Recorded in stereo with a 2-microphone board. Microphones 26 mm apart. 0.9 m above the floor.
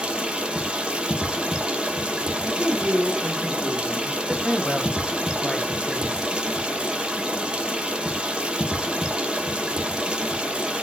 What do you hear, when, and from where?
0.0 s running water: 35° right (ahead or behind), 0.8 m
2.4 s a man speaking: 60° right (ahead or behind), 2.5 m
4.4 s a man speaking: 25° left (ahead or behind), 0.9 m